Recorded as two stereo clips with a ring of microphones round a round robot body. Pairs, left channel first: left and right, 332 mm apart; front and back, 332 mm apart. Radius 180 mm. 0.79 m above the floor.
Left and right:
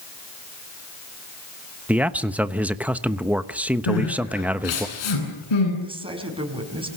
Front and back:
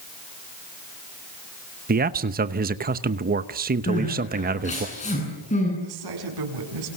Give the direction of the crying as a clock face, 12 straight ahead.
10 o'clock.